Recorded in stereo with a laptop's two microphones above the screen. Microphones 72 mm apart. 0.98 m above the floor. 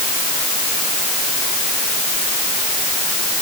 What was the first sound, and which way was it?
Only background noise.